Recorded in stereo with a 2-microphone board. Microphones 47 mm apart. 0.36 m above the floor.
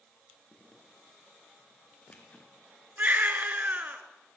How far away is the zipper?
About 3.5 m.